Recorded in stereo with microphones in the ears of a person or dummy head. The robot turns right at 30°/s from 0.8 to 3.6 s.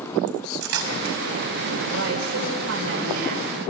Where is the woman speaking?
115° right, 4.5 m; by 3.7 s 65° right, 4.5 m.